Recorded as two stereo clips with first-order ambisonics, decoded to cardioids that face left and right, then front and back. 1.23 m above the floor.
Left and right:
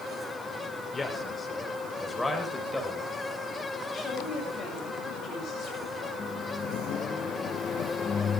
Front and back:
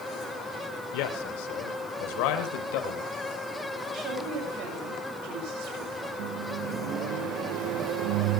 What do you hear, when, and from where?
0.9 s a man speaking: 10° left, 3.5 m; by 3.1 s straight ahead, 5 m
3.9 s a woman speaking: 150° left, 7 m
6.2 s a microwave: 160° left, 0.6 m